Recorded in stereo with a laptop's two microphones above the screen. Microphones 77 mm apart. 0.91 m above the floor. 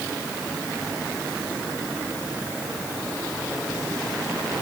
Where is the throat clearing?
I don't hear throat clearing.